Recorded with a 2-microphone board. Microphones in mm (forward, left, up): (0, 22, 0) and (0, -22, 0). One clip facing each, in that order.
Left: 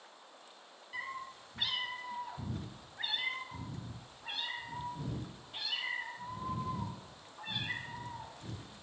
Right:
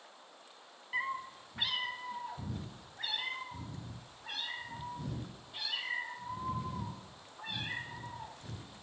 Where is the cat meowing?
45° right (ahead or behind), 0.8 m; by 8.7 s 35° left (ahead or behind), 6 m.